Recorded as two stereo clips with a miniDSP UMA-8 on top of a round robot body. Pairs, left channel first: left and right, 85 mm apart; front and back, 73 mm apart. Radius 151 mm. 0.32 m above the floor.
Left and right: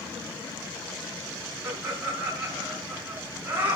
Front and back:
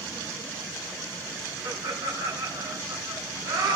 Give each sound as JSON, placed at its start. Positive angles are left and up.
{"t": 1.6, "sound": "laughter", "azimuth_deg": -160, "distance_m": 5.5}